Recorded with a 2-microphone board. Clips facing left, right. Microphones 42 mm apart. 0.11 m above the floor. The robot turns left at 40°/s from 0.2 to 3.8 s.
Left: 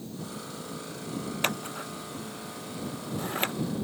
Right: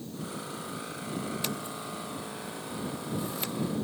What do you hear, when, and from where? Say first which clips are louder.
1.4 s scissors: left 4 dB; 50° left (ahead or behind); by 3.5 s 45° left (ahead or behind)